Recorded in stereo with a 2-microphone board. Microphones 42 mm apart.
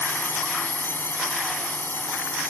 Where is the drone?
60° left (ahead or behind).